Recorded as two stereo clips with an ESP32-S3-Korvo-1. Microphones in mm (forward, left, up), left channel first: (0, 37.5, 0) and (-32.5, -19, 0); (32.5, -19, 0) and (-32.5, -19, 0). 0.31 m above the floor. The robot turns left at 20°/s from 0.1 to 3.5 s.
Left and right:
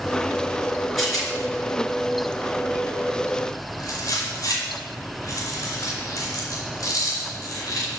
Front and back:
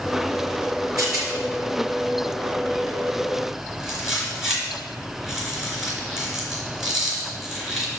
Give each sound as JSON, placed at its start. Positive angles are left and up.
{"t": 1.0, "sound": "a rattle", "azimuth_deg": 150, "distance_m": 3.5}